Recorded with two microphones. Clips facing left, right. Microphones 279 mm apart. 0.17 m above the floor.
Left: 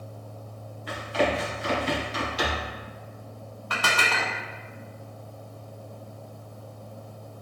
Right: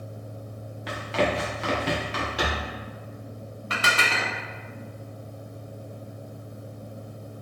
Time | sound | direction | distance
0.9 | running footsteps | 85° right | 1.9 m
3.7 | dishes clattering | 25° right (ahead or behind) | 0.7 m